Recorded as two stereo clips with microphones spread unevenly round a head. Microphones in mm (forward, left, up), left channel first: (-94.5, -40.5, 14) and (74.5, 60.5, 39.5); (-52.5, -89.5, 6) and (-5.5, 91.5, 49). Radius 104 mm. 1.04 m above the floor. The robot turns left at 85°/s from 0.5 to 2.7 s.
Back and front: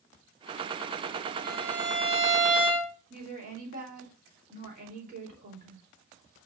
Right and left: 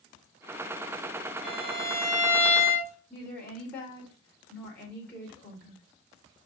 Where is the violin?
125° left, 4 m; by 2.9 s 20° left, 4 m.